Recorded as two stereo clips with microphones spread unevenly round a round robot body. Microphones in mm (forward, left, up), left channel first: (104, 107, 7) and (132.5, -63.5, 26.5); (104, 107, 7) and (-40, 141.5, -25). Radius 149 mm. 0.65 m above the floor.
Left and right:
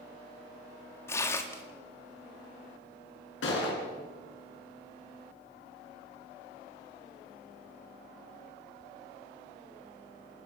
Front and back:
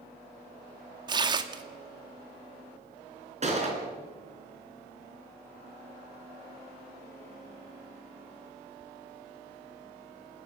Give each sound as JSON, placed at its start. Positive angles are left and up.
{"t": 1.1, "sound": "tearing paper", "azimuth_deg": 160, "distance_m": 1.2}
{"t": 3.4, "sound": "a gunshot", "azimuth_deg": 125, "distance_m": 4.5}